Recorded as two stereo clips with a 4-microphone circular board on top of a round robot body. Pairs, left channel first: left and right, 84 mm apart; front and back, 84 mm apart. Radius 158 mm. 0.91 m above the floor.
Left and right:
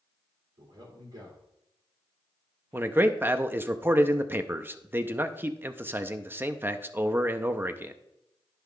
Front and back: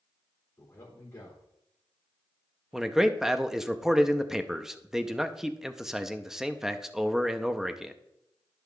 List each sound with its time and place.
0.6 s a man speaking: 65° right, 3 m
2.7 s a man speaking: 105° right, 0.8 m